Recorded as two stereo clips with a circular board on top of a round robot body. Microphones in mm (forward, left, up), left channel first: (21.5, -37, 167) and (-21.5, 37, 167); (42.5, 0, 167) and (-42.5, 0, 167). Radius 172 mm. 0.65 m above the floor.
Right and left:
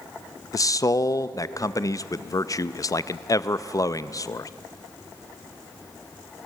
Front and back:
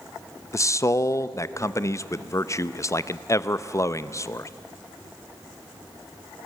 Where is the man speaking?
35° right, 0.7 m.